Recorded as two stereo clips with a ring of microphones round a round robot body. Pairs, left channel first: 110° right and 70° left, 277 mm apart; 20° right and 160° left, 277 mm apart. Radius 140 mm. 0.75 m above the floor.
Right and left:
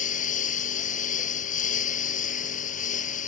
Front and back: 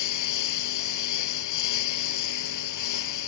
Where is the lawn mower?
50° right.